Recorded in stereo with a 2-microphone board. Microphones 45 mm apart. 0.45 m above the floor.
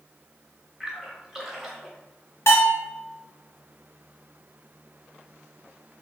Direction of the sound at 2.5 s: 85° left.